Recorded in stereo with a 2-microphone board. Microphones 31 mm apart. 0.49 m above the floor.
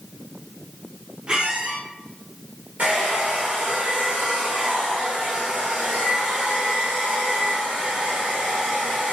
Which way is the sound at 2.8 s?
60° right (ahead or behind).